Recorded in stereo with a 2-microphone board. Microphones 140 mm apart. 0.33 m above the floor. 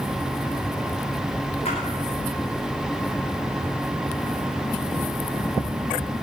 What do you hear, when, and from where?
1.6 s a splash: 55° left (ahead or behind), 8.5 m